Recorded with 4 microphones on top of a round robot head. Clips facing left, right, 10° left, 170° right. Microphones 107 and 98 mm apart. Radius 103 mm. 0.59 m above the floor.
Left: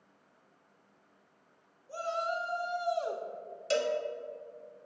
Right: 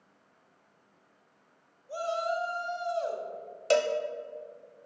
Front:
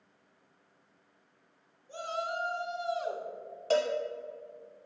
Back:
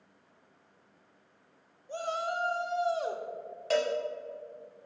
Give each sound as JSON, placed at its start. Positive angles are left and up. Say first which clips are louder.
{"t": 1.9, "sound": "a shout", "louder": "right 3 dB, back 2 dB", "azimuth_deg": -155, "distance_m": 1.3}
{"t": 3.7, "sound": "a cowbell", "louder": "right 5 dB, front 1 dB", "azimuth_deg": -65, "distance_m": 0.6}